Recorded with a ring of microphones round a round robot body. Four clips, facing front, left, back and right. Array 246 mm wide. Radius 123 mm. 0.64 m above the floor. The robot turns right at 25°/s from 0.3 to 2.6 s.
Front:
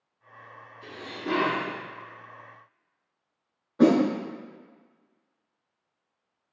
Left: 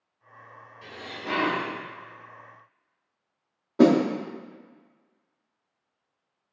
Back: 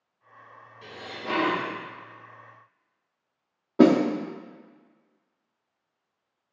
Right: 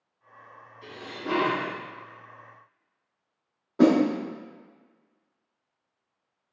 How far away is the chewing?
No chewing in this recording.